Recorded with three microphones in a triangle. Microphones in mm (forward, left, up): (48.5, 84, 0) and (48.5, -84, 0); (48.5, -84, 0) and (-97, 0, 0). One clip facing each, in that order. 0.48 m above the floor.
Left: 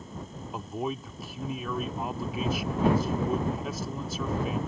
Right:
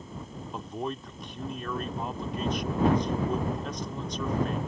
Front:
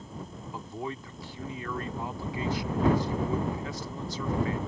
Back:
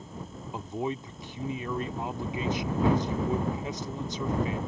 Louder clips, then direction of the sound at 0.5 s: Left 2 dB, back 5 dB; 165° left.